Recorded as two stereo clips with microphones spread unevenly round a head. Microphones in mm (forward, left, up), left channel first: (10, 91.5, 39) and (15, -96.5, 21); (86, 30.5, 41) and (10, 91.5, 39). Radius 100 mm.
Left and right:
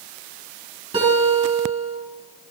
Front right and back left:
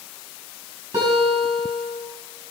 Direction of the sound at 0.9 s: 155° right.